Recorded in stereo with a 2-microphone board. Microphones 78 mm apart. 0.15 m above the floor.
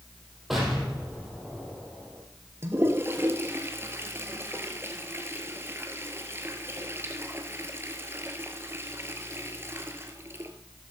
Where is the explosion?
Centre (ahead or behind), 4.5 m.